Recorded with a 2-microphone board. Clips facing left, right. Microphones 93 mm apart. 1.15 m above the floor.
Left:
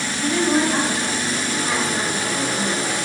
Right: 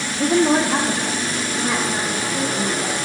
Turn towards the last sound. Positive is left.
turn(degrees=-85)